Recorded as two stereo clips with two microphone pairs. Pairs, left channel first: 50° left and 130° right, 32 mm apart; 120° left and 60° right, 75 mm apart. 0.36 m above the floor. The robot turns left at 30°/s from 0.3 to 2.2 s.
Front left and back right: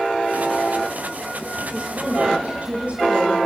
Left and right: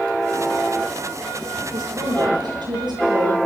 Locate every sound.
1.7 s a woman speaking: 60° right, 8.5 m; by 3.4 s 75° right, 8.5 m